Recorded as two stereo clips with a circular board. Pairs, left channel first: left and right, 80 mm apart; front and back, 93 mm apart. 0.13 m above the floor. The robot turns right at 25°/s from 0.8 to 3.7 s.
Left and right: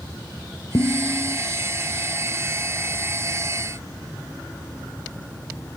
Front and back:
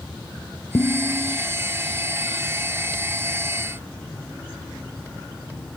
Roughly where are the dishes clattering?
Ahead left.